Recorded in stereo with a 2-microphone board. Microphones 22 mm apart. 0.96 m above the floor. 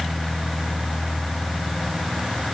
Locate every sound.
Only background noise.